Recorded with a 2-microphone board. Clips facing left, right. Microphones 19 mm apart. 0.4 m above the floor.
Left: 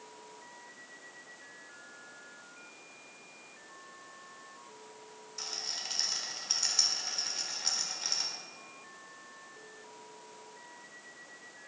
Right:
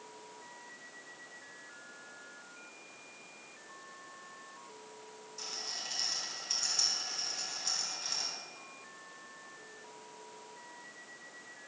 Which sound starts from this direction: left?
A rattle, at 5.4 s.